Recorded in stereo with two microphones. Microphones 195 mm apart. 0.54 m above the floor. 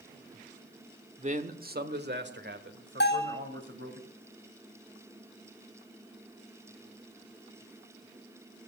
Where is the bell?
65° left (ahead or behind), 4.5 m.